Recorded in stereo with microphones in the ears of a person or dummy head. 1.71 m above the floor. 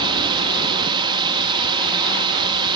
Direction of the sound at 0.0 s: 25° right (ahead or behind).